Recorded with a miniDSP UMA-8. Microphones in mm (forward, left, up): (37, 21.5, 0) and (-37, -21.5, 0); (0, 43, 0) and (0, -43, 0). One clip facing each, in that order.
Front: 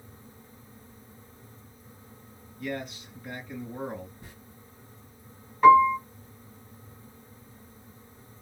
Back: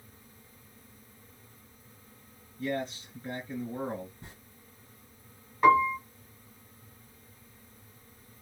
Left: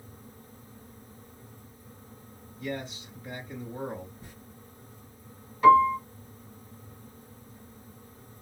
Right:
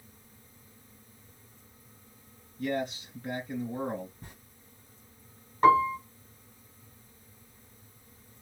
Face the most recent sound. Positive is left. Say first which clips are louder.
# front 6 dB, left 4 dB
turn(degrees=-65)